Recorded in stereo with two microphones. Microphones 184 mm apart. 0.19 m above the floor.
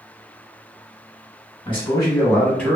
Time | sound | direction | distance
1.6 | a man speaking | 30° left (ahead or behind) | 1.1 m